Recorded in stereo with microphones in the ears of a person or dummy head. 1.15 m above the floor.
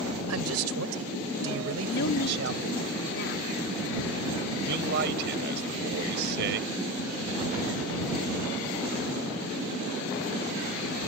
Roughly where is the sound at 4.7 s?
Right.